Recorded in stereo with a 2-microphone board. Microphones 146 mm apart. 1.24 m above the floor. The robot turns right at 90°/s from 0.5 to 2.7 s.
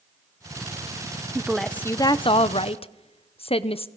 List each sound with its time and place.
1.4 s a woman speaking: 20° right, 0.7 m; by 3.9 s 100° left, 0.7 m